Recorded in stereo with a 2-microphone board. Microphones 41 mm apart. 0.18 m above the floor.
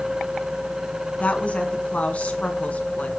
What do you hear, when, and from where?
1.2 s a woman speaking: 35° left (ahead or behind), 1.9 m